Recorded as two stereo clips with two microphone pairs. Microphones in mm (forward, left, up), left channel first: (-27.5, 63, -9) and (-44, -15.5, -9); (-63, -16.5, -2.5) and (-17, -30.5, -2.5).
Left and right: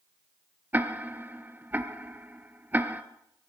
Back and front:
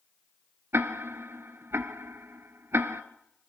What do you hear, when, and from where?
0.7 s ticking: 40° right, 0.8 m